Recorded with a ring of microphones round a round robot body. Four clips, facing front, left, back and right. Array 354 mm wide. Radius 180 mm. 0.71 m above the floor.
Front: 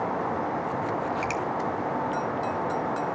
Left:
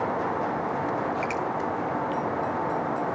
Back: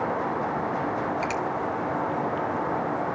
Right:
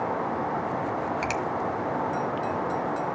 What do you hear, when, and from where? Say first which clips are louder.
1.2 s a finger snap: even, back 1 dB; 90° right, 1.8 m